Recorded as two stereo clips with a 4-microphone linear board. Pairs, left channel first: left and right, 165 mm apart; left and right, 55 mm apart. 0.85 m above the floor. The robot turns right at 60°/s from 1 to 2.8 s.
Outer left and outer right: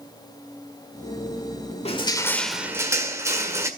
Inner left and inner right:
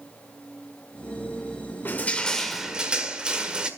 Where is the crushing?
140° left, 1.7 m; by 3.7 s 165° right, 1.7 m.